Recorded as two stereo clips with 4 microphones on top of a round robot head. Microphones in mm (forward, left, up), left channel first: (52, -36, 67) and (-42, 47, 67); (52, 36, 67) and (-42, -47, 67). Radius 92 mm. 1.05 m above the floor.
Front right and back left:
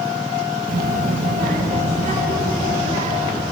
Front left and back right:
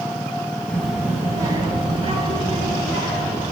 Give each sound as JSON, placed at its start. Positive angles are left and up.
{"t": 0.7, "sound": "a child speaking", "azimuth_deg": 120, "distance_m": 0.6}